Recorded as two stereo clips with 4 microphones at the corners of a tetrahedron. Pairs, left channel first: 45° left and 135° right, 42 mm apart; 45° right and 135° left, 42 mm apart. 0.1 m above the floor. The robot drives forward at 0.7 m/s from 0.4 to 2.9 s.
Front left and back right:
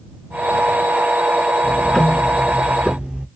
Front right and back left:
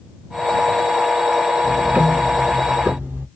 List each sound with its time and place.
1.6 s ticking: 70° left, 0.5 m; by 3.3 s 160° left, 0.9 m